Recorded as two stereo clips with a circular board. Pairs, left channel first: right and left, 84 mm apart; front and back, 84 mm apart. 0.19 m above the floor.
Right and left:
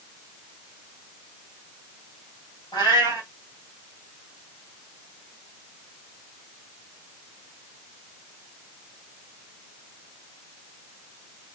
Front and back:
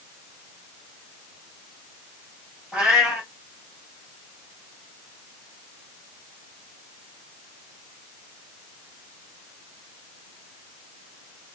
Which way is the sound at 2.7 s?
100° right.